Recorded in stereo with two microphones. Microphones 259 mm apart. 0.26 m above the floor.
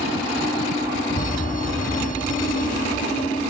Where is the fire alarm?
30° left (ahead or behind).